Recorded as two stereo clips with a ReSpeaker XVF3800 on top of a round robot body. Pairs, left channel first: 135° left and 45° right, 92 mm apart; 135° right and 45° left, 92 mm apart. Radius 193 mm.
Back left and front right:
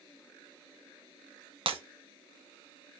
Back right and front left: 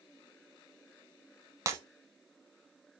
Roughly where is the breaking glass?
Ahead.